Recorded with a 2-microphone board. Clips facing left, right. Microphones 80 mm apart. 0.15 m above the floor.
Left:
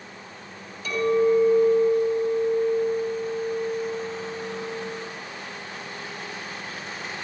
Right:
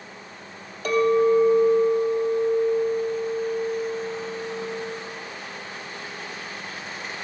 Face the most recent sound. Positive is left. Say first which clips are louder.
# right 2 dB
turn(degrees=-55)  # may be behind; listen again after turning